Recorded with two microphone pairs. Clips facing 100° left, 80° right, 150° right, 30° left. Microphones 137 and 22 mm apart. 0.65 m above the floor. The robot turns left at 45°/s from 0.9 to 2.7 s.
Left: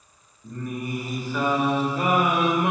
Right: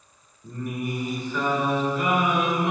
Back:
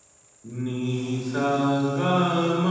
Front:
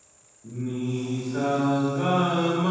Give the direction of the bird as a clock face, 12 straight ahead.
I don't hear a bird.